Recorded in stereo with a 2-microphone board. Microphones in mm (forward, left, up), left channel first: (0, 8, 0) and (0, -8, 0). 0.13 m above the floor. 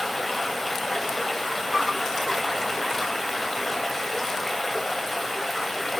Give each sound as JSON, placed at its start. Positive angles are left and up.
{"t": 0.0, "sound": "running water", "side_deg": 10, "distance_m": 2.0}